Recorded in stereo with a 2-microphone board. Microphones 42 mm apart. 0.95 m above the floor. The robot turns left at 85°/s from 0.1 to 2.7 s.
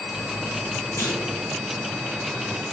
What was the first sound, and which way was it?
A clunk, 70° left (ahead or behind).